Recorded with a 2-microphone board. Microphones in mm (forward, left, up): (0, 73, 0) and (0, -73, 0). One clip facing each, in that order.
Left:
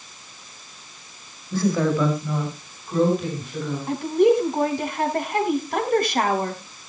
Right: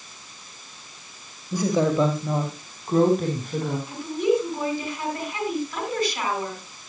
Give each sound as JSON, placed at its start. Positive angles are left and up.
{"t": 1.5, "sound": "a woman speaking", "side_deg": -15, "distance_m": 2.0}
{"t": 3.9, "sound": "a woman speaking", "side_deg": 60, "distance_m": 4.0}